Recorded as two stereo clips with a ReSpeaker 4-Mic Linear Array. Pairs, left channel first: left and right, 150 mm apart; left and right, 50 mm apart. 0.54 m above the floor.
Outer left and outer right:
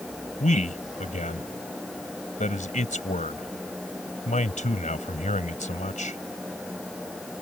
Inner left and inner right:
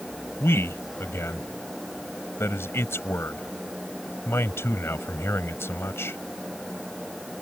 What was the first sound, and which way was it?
A man speaking, 55° left (ahead or behind).